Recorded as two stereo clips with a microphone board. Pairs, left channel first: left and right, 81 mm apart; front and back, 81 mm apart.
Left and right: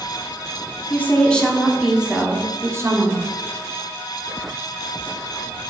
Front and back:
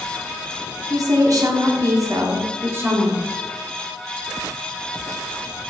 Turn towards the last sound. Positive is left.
turn(degrees=-120)